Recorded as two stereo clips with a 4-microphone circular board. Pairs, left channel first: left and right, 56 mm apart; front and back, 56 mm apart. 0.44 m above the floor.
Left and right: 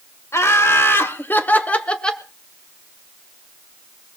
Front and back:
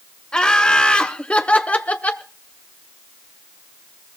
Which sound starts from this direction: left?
Laughter, at 0.3 s.